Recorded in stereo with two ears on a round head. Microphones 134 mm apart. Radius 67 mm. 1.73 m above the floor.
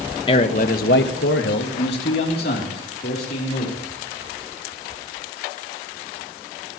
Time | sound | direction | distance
0.3 | a man speaking | 30° left (ahead or behind) | 1.2 m